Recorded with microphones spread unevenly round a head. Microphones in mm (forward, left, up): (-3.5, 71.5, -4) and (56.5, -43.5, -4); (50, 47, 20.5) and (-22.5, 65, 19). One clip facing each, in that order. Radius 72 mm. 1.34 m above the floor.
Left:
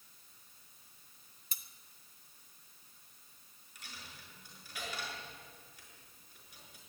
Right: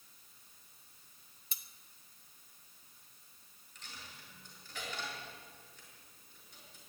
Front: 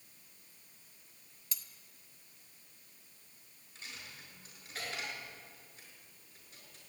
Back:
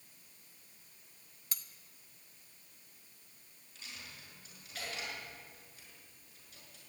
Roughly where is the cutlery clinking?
Behind left.